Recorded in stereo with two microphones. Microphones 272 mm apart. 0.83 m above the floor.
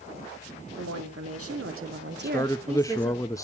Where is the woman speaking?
70° right (ahead or behind), 2.5 m; by 3.2 s centre (ahead or behind), 1.3 m.